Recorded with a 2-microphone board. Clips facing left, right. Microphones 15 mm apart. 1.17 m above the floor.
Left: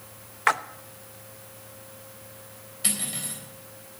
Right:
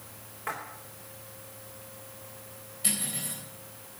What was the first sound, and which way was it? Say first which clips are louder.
A splash: left 13 dB; 65° left (ahead or behind).